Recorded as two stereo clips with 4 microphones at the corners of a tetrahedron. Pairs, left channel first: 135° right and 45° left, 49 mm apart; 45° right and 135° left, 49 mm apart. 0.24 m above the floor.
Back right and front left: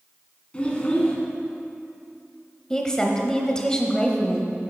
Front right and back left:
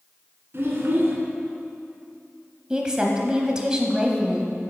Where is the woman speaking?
Straight behind, 1.0 m.